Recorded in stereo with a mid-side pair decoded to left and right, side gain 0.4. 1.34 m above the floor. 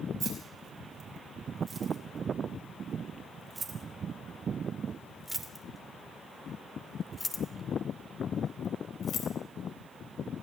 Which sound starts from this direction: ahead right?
Keys jangling, at 0.2 s.